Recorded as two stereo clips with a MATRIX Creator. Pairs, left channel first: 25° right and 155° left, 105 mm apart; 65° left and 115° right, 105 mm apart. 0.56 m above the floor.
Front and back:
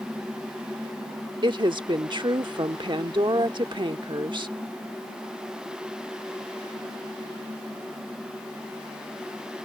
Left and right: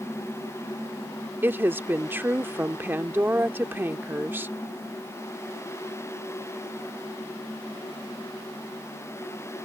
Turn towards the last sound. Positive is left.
turn(degrees=-175)